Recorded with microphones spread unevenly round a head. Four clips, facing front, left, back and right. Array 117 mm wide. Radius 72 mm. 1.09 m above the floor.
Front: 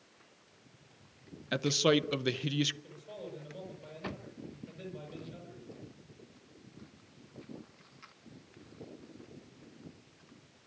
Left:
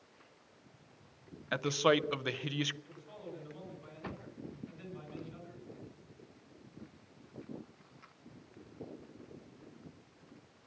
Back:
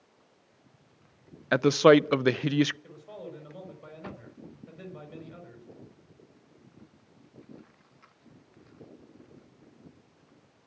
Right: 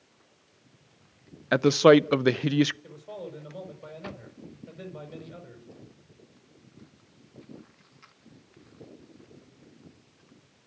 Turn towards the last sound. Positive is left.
turn(degrees=-110)